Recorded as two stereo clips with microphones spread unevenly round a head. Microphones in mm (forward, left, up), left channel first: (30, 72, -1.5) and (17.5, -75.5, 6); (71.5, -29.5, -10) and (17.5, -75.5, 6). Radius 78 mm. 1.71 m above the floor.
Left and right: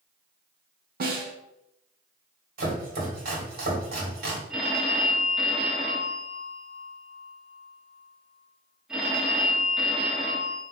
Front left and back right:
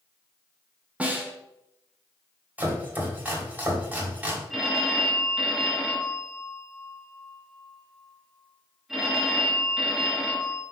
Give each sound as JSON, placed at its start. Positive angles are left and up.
{"t": 1.0, "sound": "a snare drum", "azimuth_deg": -65, "distance_m": 1.1}
{"t": 2.6, "sound": "chopping", "azimuth_deg": -75, "distance_m": 2.0}
{"t": 4.5, "sound": "a phone ringing", "azimuth_deg": -165, "distance_m": 0.9}